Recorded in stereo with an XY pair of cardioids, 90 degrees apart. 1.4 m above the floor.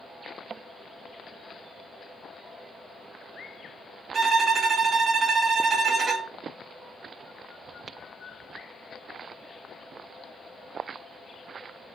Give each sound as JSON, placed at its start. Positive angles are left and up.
{"t": 4.1, "sound": "a violin", "azimuth_deg": -55, "distance_m": 0.8}